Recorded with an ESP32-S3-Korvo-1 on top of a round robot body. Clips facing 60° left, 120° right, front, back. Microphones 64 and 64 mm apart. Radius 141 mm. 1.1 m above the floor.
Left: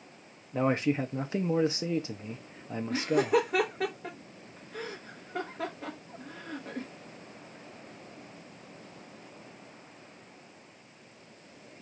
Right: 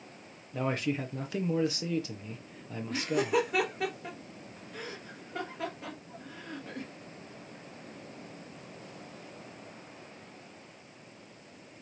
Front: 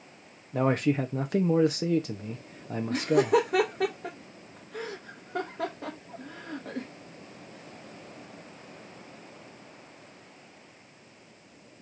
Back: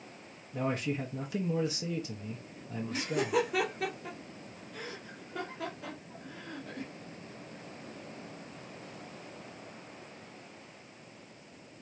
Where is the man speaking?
5° left, 0.8 m.